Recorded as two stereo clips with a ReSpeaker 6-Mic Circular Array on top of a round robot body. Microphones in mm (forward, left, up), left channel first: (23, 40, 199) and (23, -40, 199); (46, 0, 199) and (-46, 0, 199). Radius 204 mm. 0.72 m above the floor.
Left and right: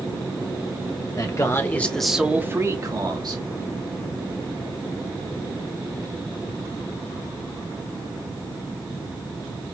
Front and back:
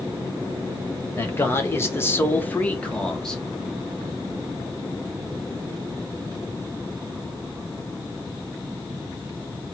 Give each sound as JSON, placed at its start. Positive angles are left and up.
{"t": 1.2, "sound": "a man speaking", "azimuth_deg": 60, "distance_m": 1.5}